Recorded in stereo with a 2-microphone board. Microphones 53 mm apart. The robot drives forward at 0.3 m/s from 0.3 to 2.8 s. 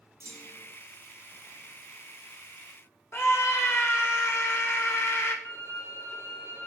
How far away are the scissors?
I don't hear scissors.